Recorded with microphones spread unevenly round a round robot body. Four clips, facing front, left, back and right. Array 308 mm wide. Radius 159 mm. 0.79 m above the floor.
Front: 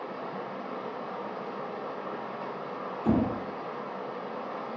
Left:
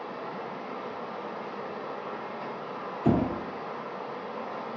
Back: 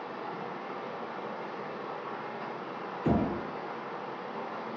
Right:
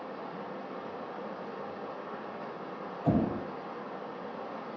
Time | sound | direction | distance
0.0 | running water | 40° left | 1.2 m
3.0 | knocking | 100° left | 1.8 m